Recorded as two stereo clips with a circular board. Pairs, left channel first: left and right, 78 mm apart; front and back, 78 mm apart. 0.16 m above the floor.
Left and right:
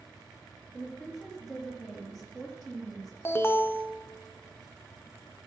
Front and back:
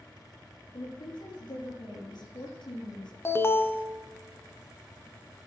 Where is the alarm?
45° left, 1.0 m.